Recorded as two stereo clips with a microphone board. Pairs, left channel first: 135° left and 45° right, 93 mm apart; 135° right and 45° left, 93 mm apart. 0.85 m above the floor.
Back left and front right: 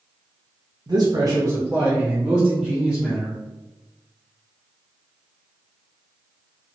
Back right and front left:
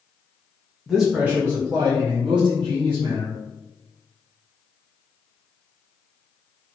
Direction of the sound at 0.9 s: 40° right.